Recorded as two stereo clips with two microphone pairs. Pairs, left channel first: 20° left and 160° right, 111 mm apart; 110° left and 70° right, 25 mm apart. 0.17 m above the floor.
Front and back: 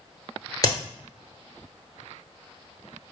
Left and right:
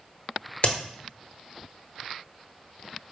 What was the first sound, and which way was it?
A crack, 70° left.